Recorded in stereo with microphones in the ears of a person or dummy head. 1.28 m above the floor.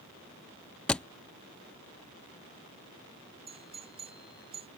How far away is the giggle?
No giggle in this recording.